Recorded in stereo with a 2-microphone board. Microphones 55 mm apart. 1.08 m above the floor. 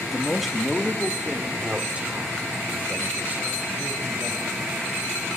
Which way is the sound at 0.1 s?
10° left (ahead or behind).